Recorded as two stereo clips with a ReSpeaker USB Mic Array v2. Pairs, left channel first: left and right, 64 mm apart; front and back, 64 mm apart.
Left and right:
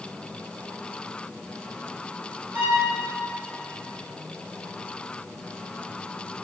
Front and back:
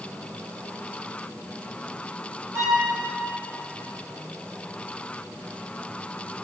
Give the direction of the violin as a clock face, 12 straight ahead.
5 o'clock.